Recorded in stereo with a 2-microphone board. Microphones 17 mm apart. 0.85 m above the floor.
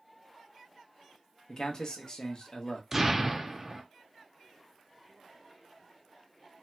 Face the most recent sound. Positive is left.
turn(degrees=-15)  # may be behind; listen again after turning